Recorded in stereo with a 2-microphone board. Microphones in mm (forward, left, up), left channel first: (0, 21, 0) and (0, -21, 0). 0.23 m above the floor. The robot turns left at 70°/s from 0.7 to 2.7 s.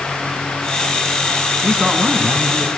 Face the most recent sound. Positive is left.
turn(degrees=-90)